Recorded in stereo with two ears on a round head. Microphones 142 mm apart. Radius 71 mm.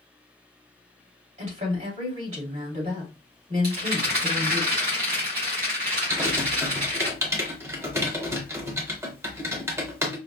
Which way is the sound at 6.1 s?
15° right (ahead or behind).